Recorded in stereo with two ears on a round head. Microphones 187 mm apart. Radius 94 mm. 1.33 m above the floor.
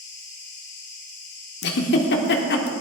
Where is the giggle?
55° left (ahead or behind), 1.3 m.